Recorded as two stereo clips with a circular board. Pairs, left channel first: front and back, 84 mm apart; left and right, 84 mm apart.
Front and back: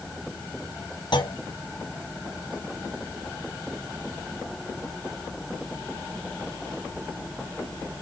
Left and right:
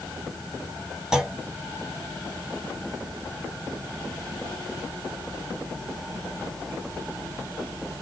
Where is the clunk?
10° right, 0.8 m.